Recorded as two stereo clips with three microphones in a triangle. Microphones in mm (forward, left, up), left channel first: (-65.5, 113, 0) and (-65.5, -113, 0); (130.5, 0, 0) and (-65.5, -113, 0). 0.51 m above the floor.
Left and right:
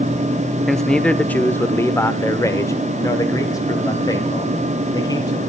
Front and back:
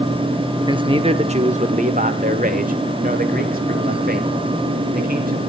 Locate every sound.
0.7 s a man speaking: straight behind, 0.9 m; by 5.4 s 165° left, 3.5 m